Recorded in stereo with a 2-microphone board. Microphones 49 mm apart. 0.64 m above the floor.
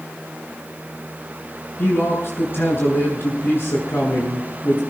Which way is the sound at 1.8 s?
45° left (ahead or behind).